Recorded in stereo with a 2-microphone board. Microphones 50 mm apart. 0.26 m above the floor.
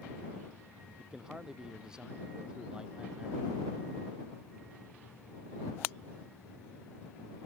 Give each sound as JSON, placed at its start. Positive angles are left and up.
{"t": 1.0, "sound": "a man speaking", "side_deg": -10}